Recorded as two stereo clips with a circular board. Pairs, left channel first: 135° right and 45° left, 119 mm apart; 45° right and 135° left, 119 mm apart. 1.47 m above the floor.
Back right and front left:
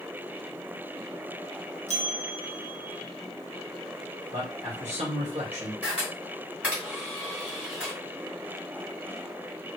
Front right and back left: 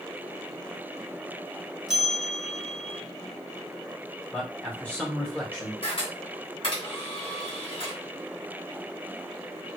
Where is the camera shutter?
30° right, 1.8 m.